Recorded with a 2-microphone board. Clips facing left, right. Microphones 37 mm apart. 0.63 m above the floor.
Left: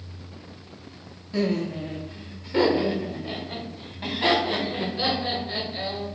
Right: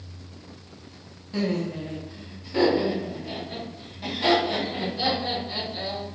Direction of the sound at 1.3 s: Centre (ahead or behind).